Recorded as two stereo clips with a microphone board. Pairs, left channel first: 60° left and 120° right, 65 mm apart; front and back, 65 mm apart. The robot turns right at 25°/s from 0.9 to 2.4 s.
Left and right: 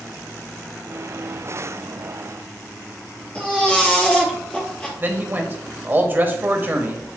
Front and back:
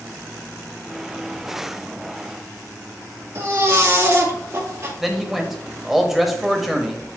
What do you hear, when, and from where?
3.4 s a baby crying: 130° left, 2 m
5.0 s a man speaking: 90° right, 1.1 m